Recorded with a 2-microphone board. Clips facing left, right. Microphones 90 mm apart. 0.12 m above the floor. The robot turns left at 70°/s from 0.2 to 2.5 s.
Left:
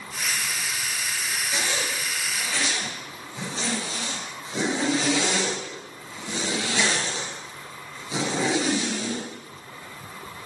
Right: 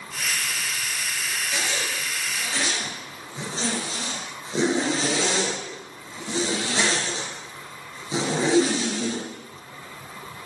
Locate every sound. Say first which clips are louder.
1.5 s a zipper: left 1 dB; 20° left (ahead or behind), 2.5 m; by 9.3 s 35° right (ahead or behind), 2.5 m